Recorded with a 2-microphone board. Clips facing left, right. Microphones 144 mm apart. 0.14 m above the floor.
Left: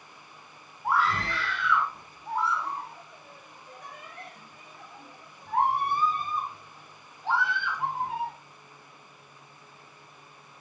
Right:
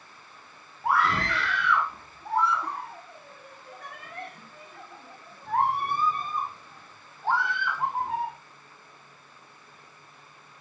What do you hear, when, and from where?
0.8 s a scream: 80° right, 8.5 m; by 8.3 s 45° right (ahead or behind), 13.5 m